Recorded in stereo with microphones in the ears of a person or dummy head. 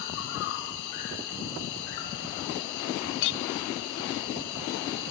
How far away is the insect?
About 4 m.